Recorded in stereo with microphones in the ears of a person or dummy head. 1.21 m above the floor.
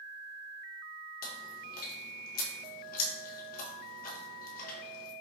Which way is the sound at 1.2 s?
50° left (ahead or behind).